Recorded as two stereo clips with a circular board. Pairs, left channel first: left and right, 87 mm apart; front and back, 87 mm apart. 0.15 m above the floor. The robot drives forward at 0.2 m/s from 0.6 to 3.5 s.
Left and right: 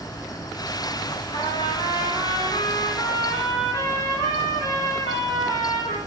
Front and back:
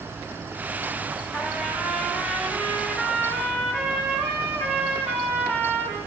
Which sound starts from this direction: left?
A trumpet, at 1.3 s.